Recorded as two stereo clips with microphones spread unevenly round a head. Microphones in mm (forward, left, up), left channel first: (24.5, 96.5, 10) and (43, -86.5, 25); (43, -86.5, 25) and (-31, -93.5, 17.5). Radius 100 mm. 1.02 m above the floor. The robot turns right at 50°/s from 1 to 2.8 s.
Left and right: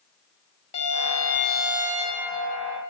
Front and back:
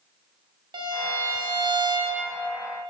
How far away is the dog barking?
No dog barking in this recording.